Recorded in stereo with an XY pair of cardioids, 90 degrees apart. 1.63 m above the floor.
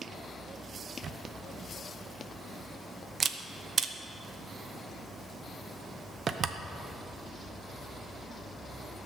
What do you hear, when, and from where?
1.0 s a camera shutter: 55° right, 0.9 m